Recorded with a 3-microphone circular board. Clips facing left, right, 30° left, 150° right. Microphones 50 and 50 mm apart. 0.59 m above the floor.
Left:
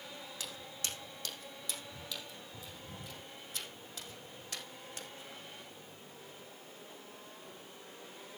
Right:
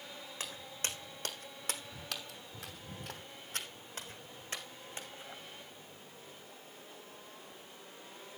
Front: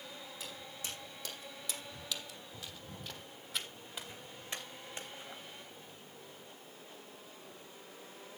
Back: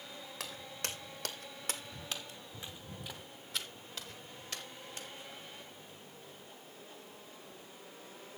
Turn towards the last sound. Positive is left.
turn(degrees=-25)